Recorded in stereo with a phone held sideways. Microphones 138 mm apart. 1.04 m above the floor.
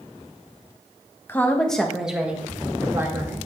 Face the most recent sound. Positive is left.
turn(degrees=-20)  # may be behind; listen again after turning